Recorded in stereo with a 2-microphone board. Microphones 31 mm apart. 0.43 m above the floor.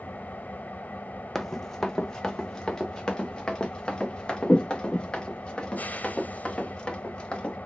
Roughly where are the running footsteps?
Centre.